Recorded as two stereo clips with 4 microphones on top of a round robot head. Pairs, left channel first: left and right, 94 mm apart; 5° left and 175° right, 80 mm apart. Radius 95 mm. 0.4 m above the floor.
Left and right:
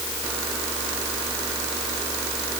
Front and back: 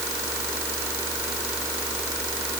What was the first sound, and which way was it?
Only background noise.